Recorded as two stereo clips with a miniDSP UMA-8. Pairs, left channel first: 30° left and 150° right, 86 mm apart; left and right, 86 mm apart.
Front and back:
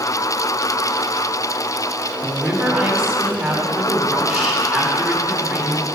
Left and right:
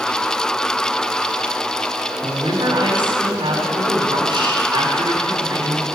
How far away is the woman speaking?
About 4 m.